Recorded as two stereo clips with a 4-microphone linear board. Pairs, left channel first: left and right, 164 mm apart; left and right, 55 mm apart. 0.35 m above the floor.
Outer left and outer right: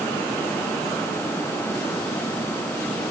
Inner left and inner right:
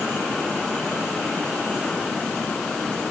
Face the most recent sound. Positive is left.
No sound to turn to.